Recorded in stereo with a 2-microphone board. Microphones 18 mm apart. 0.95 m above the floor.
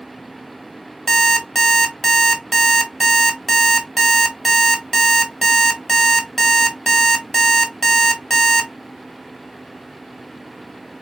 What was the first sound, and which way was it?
An alarm clock, 20° left (ahead or behind).